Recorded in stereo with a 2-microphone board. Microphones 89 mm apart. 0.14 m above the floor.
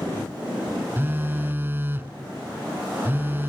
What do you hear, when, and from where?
1.0 s a phone buzzing: 25° right (ahead or behind), 0.7 m